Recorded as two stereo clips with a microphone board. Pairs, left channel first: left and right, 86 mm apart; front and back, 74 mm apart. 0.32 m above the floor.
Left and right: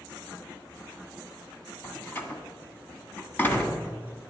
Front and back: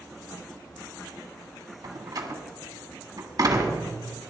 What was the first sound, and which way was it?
A door slam, 155° left.